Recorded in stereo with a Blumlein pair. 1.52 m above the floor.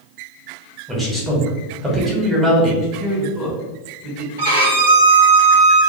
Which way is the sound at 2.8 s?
5° right.